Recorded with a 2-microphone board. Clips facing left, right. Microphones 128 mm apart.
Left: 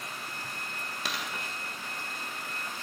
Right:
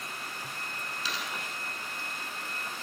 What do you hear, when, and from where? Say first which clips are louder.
1.1 s a dropped coin: left 1 dB; 60° left (ahead or behind), 0.9 m